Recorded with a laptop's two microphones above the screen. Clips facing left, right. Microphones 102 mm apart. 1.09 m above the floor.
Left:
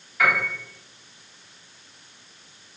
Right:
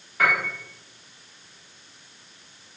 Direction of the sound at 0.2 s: 45° right (ahead or behind).